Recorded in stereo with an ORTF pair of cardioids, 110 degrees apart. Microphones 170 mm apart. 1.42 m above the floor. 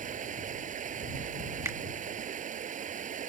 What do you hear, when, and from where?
0.0 s running water: 50° right
1.6 s a finger snap: 15° right